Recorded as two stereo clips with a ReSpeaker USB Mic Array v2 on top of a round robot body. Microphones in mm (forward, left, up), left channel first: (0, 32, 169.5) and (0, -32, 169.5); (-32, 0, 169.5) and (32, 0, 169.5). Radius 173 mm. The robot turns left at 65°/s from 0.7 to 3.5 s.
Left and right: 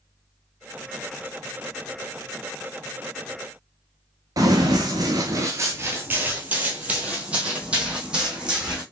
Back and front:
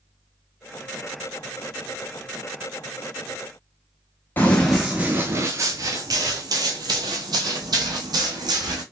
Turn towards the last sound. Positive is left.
turn(degrees=-10)